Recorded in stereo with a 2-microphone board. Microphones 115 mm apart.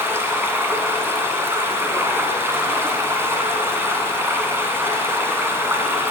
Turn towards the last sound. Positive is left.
turn(degrees=-20)  # may be behind; listen again after turning